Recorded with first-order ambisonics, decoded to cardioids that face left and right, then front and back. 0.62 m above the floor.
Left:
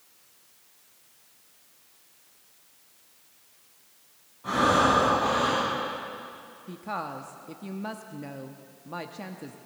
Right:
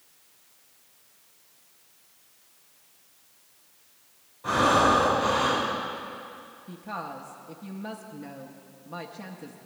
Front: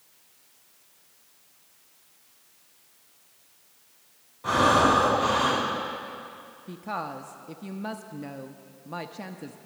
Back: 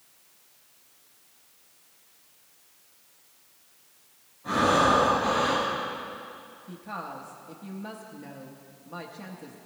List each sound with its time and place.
4.4 s breathing: 10° right, 5.5 m
6.7 s a woman speaking: 25° left, 0.6 m